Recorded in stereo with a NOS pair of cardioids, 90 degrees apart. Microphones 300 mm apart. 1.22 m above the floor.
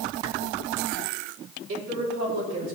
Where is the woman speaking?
65° right, 4 m.